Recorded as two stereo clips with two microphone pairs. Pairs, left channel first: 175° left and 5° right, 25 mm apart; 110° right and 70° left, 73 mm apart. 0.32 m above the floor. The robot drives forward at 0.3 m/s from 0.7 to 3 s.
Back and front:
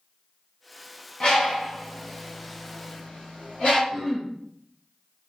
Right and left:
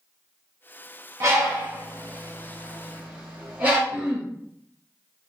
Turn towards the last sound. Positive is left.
turn(degrees=90)